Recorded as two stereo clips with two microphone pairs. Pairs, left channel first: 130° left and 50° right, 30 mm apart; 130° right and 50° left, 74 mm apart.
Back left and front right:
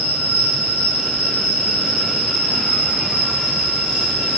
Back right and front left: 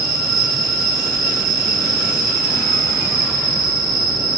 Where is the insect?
90° right, 9 m.